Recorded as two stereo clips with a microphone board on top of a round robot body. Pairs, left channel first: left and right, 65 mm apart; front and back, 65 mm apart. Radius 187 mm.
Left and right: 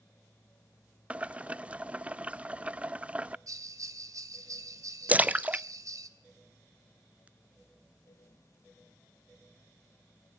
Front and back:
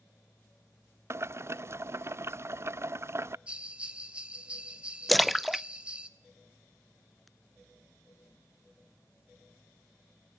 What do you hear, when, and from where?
1.1 s boiling: 150° right, 0.5 m
3.5 s a bell: 110° right, 3 m
5.1 s a splash: 90° right, 0.6 m